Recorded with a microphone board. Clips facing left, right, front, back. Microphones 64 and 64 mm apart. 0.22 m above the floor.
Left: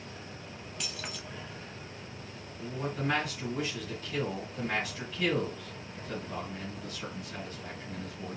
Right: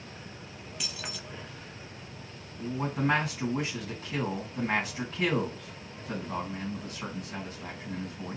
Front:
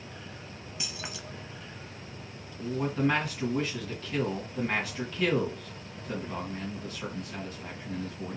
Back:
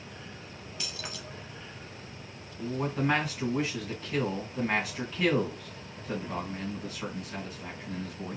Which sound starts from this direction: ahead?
Keys jangling, at 0.8 s.